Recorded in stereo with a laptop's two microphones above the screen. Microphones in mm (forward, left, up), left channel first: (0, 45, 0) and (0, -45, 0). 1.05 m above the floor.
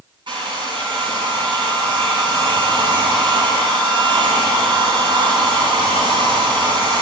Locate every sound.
0.3 s a hair dryer: 65° right (ahead or behind), 9.5 m